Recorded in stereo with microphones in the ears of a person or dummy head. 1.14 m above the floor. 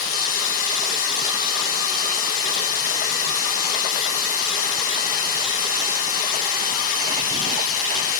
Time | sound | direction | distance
0.0 | running water | 40° left (ahead or behind) | 1.1 m